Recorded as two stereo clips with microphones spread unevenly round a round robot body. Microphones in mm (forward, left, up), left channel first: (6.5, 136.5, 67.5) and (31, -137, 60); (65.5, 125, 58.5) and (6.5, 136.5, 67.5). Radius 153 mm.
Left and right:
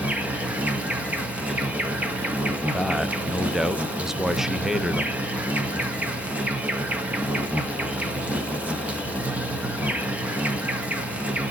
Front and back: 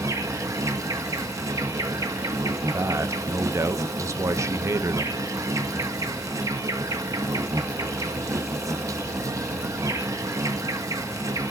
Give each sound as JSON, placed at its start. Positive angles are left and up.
{"t": 0.0, "sound": "an insect", "azimuth_deg": -165, "distance_m": 1.0}
{"t": 2.7, "sound": "a man speaking", "azimuth_deg": -170, "distance_m": 0.7}